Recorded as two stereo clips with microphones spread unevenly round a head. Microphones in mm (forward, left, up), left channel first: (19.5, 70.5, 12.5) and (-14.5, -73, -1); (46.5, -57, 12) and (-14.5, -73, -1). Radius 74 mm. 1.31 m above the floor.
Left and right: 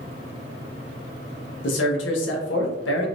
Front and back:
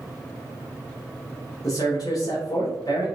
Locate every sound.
1.6 s a man speaking: 80° left, 1.3 m